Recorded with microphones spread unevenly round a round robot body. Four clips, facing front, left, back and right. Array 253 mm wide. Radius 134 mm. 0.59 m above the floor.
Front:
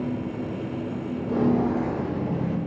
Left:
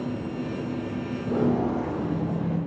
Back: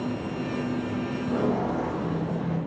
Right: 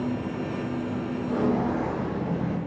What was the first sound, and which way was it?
Footsteps, 60° left.